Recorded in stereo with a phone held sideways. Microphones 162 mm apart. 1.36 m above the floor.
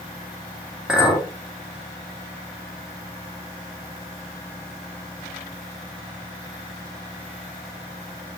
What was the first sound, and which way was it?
A clink, 5° right (ahead or behind).